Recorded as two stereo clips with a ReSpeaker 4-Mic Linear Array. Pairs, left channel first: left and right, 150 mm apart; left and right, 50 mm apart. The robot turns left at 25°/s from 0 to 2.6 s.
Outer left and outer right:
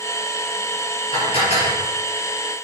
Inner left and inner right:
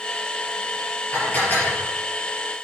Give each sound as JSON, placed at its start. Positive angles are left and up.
{"t": 1.1, "sound": "dishes clattering", "side_deg": 35, "distance_m": 4.0}